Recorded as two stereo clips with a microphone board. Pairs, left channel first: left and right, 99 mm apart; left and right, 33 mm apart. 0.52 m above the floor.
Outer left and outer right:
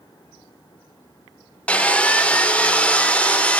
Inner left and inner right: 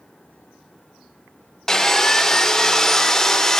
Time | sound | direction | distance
1.7 | sawing | 15° left (ahead or behind) | 0.6 m